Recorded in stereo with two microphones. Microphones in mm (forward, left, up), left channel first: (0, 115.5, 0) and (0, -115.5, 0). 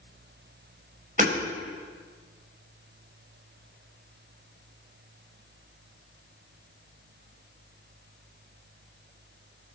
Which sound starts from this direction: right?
Hammering, at 1.2 s.